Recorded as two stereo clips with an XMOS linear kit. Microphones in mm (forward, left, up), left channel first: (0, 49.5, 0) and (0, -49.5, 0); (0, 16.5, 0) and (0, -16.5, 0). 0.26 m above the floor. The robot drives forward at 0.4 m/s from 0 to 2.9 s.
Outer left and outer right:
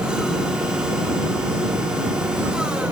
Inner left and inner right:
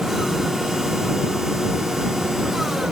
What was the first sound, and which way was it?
Only background noise.